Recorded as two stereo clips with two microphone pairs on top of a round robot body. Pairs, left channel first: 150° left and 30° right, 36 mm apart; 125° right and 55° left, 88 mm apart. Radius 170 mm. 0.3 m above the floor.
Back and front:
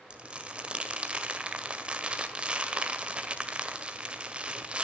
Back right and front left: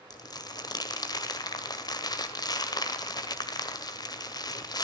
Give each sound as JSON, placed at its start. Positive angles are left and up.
{"t": 0.1, "sound": "crumpling", "azimuth_deg": -90, "distance_m": 1.9}